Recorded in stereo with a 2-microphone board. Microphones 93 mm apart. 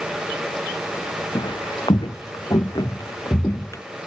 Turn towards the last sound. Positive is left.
turn(degrees=30)  # may be behind; listen again after turning